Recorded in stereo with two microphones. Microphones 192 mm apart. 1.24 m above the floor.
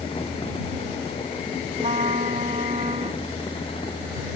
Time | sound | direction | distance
1.8 | a trumpet | 40° right (ahead or behind) | ?